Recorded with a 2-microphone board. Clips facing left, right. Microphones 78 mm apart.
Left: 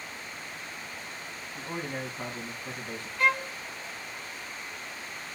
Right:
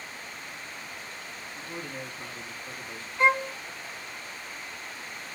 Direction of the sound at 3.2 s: 25° right (ahead or behind).